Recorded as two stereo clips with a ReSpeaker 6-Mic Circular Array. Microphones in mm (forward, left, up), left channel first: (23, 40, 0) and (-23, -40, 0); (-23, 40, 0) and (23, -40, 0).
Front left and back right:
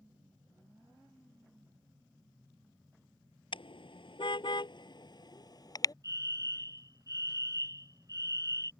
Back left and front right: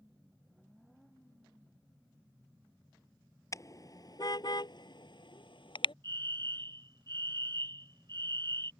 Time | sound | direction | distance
3.5 | a car horn | 70° left | ?
6.0 | a fire alarm | 80° right | ?